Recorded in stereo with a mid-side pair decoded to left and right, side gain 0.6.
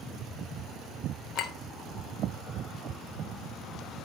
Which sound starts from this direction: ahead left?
A clink, at 1.4 s.